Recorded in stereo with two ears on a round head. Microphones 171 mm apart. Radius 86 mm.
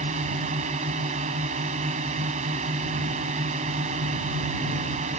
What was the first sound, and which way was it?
A drone, 40° right (ahead or behind).